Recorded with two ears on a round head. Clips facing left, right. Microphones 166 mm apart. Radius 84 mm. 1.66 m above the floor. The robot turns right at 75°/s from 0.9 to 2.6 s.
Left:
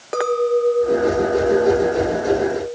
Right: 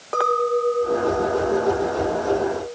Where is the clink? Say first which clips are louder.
Left 4 dB; 30° left, 1.0 m; by 2.8 s 160° left, 1.0 m.